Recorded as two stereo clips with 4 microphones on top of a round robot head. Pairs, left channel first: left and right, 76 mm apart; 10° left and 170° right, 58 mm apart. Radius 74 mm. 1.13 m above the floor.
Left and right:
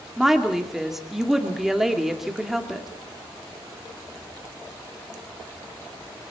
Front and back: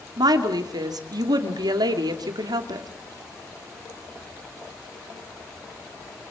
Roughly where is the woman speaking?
Behind.